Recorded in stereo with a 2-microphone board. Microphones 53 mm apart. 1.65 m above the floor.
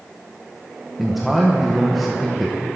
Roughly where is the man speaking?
Centre.